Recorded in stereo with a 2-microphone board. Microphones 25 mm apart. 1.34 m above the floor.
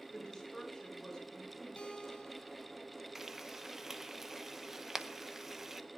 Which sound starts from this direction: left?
A guitar, at 1.8 s.